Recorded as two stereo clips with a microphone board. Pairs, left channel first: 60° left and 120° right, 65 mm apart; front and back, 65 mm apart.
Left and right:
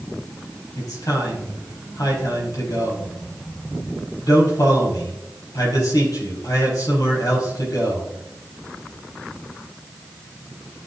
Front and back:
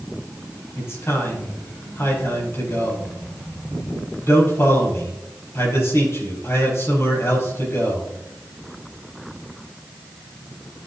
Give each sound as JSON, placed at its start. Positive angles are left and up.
{"t": 0.8, "sound": "a man speaking", "azimuth_deg": 40, "distance_m": 4.5}